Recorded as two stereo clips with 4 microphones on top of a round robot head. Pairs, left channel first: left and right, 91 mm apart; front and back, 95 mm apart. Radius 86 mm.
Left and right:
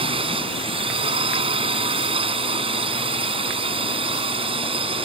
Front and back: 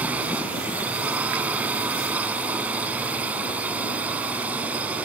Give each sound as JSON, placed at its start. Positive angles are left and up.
{"t": 0.0, "sound": "a drone", "azimuth_deg": -105}